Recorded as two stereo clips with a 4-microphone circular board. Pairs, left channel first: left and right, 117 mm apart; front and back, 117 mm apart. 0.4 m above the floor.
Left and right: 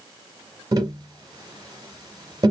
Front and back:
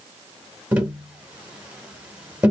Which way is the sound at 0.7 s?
110° right.